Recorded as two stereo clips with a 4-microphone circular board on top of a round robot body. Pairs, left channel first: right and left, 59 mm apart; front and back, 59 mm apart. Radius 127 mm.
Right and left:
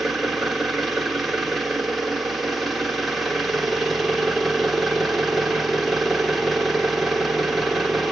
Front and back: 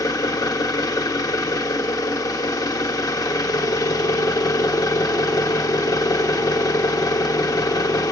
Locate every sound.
0.0 s an engine running: 5° left, 2 m